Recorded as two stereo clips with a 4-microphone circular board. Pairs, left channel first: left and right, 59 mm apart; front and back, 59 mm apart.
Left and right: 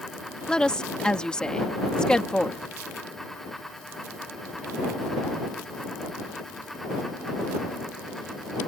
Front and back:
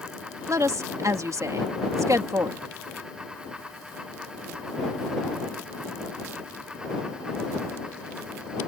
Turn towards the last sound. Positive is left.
turn(degrees=165)